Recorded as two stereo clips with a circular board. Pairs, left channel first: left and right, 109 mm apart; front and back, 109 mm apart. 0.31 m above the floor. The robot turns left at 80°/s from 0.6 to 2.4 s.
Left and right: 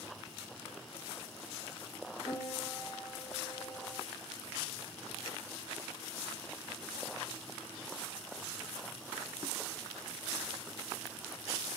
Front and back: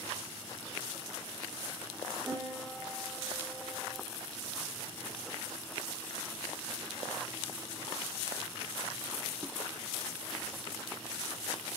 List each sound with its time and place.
2.2 s a piano: 160° left, 1.3 m; by 4.0 s 150° left, 1.3 m